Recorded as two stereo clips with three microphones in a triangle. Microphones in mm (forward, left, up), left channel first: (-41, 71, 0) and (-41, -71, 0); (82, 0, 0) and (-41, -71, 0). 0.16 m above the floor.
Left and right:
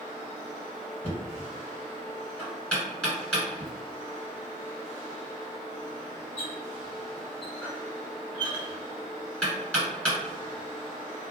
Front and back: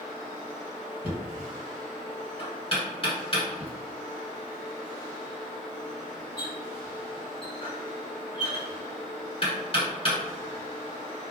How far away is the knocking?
About 1.8 m.